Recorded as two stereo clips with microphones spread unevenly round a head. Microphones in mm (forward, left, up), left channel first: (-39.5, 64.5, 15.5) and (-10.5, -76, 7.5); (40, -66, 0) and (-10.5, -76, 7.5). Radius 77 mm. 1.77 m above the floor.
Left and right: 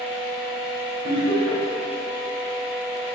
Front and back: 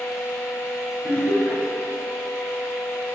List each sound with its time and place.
0.0 s a fan: straight ahead, 0.8 m
1.0 s laughter: 40° right, 2.0 m